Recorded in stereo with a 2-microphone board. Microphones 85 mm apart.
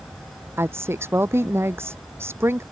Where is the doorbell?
No doorbell in this recording.